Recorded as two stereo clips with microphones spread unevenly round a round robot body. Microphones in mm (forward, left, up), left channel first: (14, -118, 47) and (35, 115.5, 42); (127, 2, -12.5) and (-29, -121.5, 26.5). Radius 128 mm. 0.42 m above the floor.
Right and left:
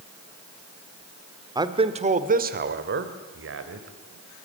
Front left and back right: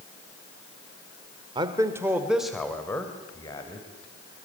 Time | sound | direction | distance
1.6 | a man speaking | 145° left | 1.7 m